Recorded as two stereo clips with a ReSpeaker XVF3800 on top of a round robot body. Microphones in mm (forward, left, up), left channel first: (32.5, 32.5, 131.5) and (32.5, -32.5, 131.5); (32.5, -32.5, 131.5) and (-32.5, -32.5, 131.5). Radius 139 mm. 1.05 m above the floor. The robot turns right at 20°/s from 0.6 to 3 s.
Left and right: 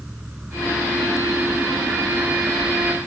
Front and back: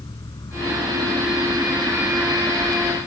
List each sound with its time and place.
0.0 s an insect: 15° right; by 3.1 s 35° left